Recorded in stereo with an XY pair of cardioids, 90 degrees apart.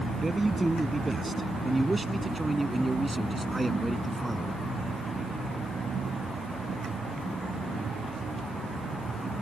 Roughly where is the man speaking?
Ahead.